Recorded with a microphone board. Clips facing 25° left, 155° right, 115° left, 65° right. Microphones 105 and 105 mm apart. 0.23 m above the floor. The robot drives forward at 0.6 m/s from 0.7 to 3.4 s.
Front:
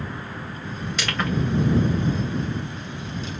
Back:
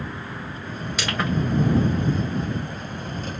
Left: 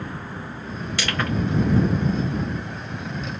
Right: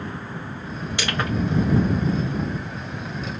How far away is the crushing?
About 1.6 m.